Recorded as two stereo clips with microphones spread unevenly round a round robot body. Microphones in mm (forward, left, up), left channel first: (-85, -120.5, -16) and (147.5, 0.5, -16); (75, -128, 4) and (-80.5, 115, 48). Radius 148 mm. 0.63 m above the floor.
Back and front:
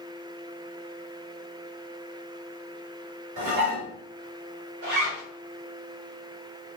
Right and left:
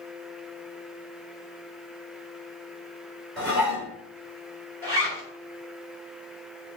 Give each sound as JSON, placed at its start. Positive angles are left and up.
{"t": 3.4, "sound": "dishes clattering", "azimuth_deg": 25, "distance_m": 1.4}
{"t": 4.8, "sound": "a zipper", "azimuth_deg": 20, "distance_m": 2.0}